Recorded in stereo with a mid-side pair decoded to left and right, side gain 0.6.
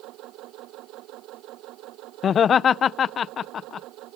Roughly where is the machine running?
Ahead right.